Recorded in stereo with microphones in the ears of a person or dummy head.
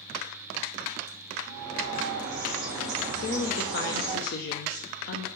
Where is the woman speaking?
55° left (ahead or behind), 0.6 m.